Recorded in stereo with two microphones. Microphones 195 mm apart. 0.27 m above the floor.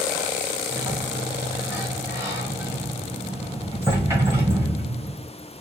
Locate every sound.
0.7 s a sliding door: 15° right (ahead or behind), 1.6 m